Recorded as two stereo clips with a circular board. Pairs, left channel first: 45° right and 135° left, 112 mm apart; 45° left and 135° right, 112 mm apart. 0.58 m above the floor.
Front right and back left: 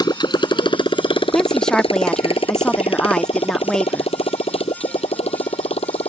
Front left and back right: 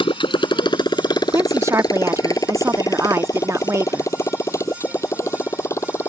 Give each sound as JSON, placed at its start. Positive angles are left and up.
{"t": 0.0, "sound": "a motorcycle", "azimuth_deg": 5}
{"t": 1.3, "sound": "a woman speaking", "azimuth_deg": -120}